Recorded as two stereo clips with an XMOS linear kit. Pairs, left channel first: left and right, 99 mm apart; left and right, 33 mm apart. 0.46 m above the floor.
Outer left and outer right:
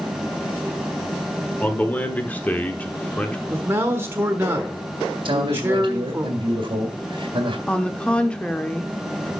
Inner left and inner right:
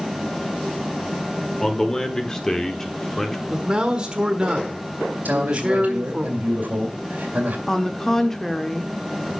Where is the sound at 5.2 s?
60° right (ahead or behind), 2 m.